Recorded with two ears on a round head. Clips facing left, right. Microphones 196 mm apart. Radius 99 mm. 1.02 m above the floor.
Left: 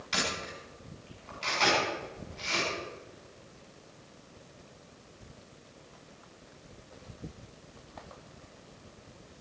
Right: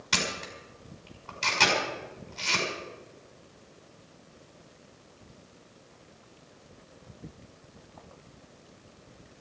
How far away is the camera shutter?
About 6 m.